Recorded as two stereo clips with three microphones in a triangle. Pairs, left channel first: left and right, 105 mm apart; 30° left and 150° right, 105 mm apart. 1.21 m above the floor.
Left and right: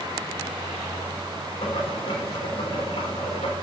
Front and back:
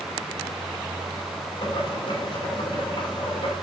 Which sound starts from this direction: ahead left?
Boiling, at 1.6 s.